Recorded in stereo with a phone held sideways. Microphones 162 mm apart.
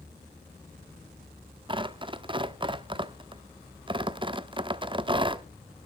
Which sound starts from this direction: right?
Tearing paper, at 1.7 s.